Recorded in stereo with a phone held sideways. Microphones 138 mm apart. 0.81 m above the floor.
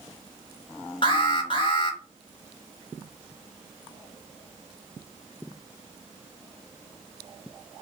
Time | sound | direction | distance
1.0 | an alarm | 40° left (ahead or behind) | 0.8 m